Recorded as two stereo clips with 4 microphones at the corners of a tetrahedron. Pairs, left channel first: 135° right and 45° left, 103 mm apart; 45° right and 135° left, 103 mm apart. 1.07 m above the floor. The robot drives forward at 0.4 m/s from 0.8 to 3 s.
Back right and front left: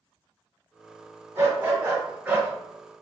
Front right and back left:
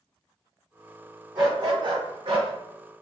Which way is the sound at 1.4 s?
100° left.